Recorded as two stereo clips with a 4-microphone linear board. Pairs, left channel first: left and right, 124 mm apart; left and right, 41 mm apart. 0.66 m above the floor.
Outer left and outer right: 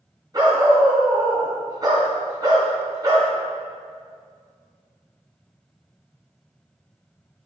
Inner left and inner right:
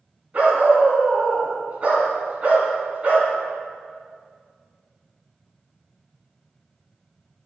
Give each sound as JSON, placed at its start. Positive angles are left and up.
{"t": 0.3, "sound": "a dog barking", "side_deg": -35, "distance_m": 2.5}